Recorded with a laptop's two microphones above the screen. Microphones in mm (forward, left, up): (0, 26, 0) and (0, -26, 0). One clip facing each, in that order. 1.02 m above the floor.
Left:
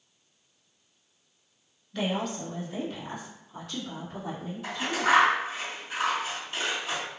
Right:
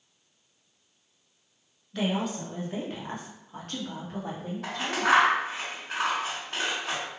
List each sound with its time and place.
1.9 s a woman speaking: 5° right (ahead or behind), 1.1 m; by 5.1 s 70° right (ahead or behind), 2 m
4.6 s scissors: 75° right (ahead or behind), 2.0 m